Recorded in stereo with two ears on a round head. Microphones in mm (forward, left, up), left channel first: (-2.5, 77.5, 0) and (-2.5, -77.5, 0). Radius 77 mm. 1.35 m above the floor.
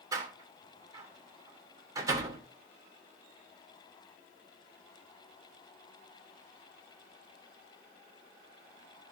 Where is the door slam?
20° right (ahead or behind), 2.5 m.